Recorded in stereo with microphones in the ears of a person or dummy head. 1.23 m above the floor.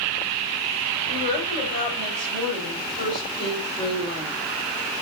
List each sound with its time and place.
1.1 s a woman speaking: 30° left (ahead or behind), 9 m